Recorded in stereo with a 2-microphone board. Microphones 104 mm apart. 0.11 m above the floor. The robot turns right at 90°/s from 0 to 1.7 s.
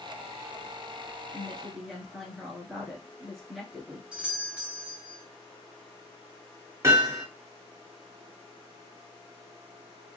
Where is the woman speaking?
145° left, 1.3 m; by 4.0 s straight behind, 1.3 m.